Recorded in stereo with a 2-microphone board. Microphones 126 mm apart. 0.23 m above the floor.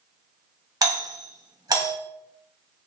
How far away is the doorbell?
About 1.6 m.